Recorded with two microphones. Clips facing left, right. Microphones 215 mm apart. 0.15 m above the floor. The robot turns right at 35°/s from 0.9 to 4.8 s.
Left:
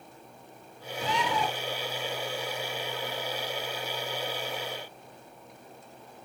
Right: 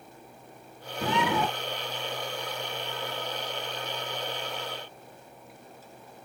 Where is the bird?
60° right (ahead or behind), 1.5 m.